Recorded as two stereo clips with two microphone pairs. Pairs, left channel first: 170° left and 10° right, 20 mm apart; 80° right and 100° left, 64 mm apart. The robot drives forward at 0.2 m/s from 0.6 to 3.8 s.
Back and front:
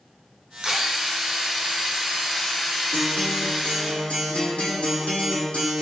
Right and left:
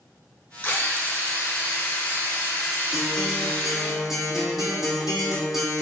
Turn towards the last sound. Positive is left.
turn(degrees=-175)